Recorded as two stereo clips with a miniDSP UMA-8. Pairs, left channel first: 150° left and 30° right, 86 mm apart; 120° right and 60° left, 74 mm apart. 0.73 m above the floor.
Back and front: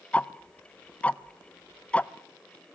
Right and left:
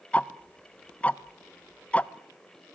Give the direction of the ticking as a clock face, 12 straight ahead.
5 o'clock.